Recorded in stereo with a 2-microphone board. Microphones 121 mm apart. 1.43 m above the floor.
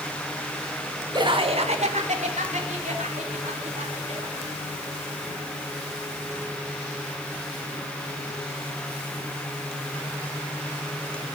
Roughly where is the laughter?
Right.